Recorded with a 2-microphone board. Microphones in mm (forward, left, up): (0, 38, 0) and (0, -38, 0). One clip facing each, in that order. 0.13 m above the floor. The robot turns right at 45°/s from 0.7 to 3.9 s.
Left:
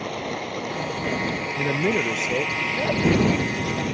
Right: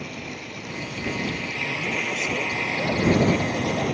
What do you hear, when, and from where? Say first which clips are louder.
0.0 s running water: left 6 dB; 110° left; by 3.9 s 105° right
1.6 s a man speaking: left 9 dB; 100° left; by 3.8 s 160° right